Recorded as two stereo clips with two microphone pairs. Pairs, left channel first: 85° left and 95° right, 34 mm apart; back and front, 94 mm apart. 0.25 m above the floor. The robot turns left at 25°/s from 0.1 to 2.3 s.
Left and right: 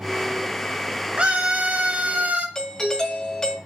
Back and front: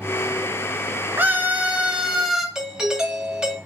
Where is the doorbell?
65° left, 1.5 m.